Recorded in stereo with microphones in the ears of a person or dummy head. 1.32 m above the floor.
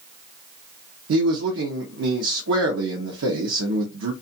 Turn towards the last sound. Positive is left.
turn(degrees=-80)